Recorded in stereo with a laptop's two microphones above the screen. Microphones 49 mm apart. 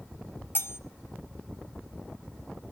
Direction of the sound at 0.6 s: 55° left (ahead or behind).